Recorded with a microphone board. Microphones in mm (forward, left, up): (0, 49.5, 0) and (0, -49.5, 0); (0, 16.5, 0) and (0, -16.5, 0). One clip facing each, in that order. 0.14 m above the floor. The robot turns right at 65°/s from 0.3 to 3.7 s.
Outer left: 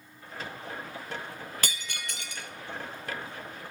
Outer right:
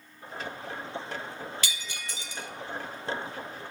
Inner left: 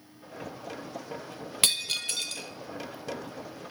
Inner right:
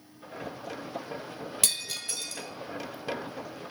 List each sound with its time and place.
1.6 s breaking glass: 55° left (ahead or behind), 1.0 m; by 3.7 s 10° right (ahead or behind), 1.0 m